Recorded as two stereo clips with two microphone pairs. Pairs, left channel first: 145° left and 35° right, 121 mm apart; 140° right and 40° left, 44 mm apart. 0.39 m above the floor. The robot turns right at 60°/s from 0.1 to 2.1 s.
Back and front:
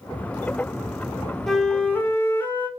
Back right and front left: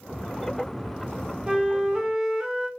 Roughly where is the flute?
Ahead left.